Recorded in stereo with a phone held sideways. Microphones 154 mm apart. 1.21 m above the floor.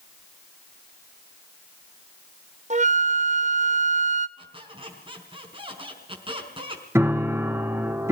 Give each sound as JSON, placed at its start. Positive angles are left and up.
{"t": 2.7, "sound": "a flute", "side_deg": -50, "distance_m": 1.0}
{"t": 4.4, "sound": "a squeak", "side_deg": -35, "distance_m": 5.0}
{"t": 7.0, "sound": "a piano", "side_deg": -15, "distance_m": 1.1}